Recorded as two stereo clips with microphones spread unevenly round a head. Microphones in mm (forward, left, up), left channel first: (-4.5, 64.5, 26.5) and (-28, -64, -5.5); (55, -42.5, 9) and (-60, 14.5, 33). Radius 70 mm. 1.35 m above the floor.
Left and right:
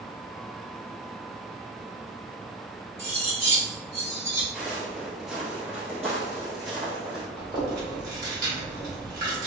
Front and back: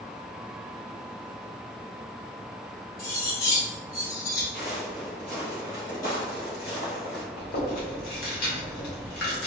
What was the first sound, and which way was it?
Cutlery clinking, 25° right.